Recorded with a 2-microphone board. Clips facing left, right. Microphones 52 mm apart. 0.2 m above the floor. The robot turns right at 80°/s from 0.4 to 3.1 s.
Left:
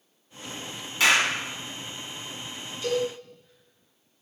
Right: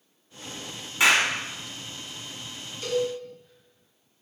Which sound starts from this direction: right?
A cowbell, at 2.8 s.